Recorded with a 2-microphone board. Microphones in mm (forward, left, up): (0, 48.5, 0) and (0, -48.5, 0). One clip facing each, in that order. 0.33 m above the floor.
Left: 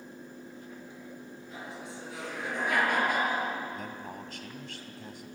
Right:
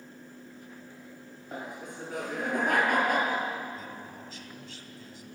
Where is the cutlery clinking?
I don't hear cutlery clinking.